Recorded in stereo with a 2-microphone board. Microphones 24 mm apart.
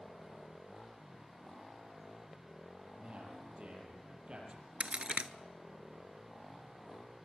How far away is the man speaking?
About 5.5 m.